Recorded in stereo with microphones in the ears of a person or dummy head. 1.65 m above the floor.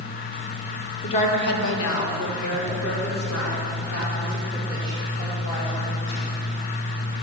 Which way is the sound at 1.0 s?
30° left (ahead or behind).